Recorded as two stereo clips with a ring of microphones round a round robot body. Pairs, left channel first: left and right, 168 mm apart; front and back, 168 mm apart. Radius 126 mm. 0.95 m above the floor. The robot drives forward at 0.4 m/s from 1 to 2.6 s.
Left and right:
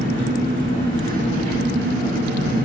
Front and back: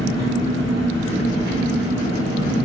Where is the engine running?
80° right, 1.8 m; by 2.7 s 105° right, 1.8 m.